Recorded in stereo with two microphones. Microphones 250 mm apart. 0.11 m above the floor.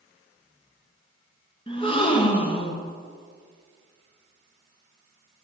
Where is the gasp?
20° left (ahead or behind), 1.7 m.